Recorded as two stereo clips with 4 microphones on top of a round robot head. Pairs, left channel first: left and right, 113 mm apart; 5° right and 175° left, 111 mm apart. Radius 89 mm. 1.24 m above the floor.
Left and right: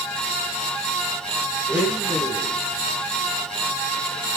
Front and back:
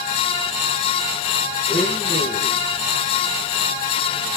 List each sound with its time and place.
1.7 s a blender: 170° right, 1.6 m